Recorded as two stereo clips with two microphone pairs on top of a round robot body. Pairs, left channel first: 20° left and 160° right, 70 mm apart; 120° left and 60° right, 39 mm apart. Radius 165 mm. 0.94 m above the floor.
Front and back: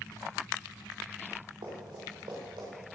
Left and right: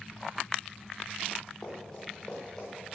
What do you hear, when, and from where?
1.6 s running footsteps: 175° right, 7 m